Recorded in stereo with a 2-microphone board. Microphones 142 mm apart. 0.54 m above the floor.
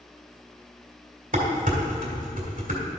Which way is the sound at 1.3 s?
70° right (ahead or behind).